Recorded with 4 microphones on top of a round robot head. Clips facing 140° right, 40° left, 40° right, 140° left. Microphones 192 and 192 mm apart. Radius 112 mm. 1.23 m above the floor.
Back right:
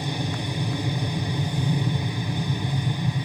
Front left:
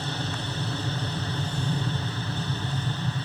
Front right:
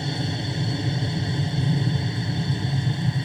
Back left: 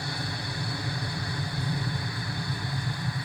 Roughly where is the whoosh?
No whoosh in this recording.